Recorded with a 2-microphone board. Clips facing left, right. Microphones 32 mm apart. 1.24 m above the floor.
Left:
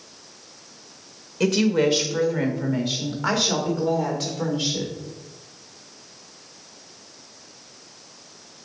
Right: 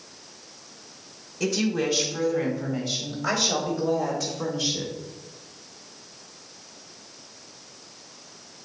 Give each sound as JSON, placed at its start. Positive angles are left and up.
{"t": 1.4, "sound": "a woman speaking", "side_deg": 65, "distance_m": 1.6}